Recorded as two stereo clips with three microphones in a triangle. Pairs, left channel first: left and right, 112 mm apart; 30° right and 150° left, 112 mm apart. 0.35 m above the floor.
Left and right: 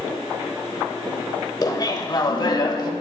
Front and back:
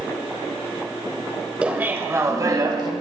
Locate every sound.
1.6 s laughter: 80° left, 1.4 m; by 2.9 s 120° left, 1.7 m